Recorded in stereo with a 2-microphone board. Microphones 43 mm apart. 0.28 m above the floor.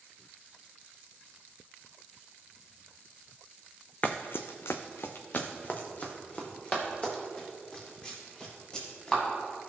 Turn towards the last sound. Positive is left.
turn(degrees=25)  # may be behind; listen again after turning